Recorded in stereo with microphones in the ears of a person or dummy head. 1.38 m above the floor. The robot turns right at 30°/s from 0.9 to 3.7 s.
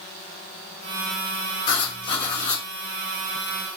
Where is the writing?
45° left (ahead or behind), 1.8 m; by 2.6 s 30° left (ahead or behind), 1.8 m.